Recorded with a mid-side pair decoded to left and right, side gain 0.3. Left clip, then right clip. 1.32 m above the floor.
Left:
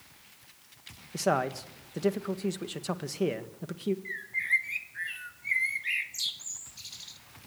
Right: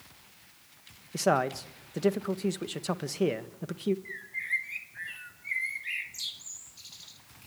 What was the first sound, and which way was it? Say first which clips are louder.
A man speaking: right 2 dB; 25° right.